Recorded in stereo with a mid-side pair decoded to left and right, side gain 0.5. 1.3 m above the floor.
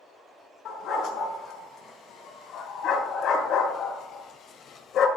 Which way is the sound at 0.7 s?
65° left.